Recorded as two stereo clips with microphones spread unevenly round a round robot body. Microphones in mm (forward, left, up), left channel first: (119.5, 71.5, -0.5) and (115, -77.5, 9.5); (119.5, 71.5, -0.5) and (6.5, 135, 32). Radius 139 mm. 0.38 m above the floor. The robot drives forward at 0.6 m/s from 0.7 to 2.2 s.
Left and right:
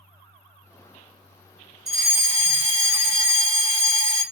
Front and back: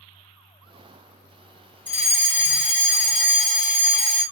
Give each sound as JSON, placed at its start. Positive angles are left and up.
{"t": 1.9, "sound": "a fire alarm", "azimuth_deg": -150, "distance_m": 3.0}